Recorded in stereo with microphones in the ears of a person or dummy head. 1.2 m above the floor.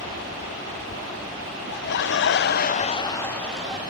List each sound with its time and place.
1.7 s laughter: 60° left (ahead or behind); by 3.8 s 5° right (ahead or behind)